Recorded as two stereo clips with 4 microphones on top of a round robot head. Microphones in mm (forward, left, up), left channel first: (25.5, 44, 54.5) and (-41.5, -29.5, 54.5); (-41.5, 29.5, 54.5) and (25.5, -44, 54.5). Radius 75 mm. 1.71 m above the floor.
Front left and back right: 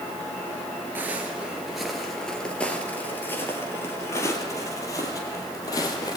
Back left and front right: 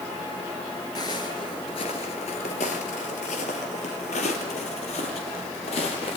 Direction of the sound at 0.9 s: 165° left.